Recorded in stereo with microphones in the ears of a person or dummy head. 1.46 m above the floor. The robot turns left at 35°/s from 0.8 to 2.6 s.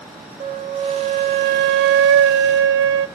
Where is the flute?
40° right, 1.0 m; by 3.1 s 105° right, 1.0 m.